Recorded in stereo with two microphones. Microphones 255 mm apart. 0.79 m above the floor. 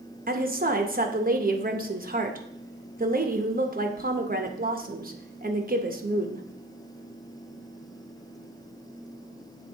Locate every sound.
0.3 s a woman speaking: 35° right (ahead or behind), 0.8 m